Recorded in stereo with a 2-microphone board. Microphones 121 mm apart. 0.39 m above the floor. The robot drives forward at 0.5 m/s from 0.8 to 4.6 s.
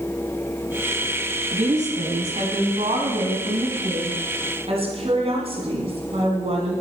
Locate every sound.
1.5 s a woman speaking: 70° right (ahead or behind), 2.5 m; by 6.8 s 55° right (ahead or behind), 3 m